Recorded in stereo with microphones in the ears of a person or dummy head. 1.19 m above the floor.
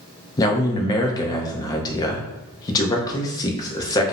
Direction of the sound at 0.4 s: 25° left (ahead or behind).